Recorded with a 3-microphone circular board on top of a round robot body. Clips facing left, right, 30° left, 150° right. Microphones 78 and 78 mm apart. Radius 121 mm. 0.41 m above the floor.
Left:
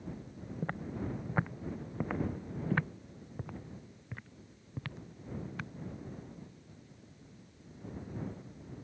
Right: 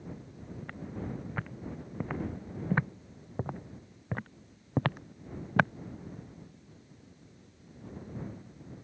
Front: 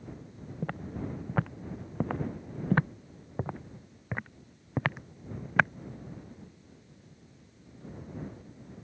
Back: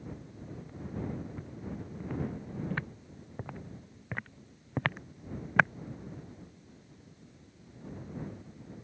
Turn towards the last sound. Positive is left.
turn(degrees=-60)